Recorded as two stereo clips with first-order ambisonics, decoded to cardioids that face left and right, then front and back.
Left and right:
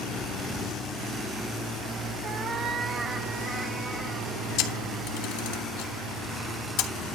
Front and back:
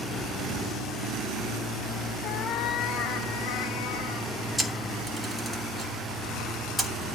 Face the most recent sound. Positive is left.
turn(degrees=85)